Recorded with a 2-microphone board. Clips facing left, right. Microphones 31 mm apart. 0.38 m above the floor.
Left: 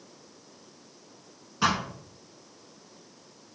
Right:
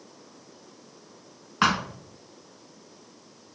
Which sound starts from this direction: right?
A thud, at 1.6 s.